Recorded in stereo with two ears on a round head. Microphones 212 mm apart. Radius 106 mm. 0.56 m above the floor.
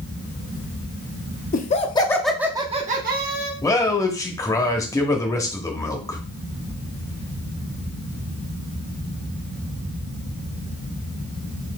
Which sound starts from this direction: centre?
A man speaking, at 3.6 s.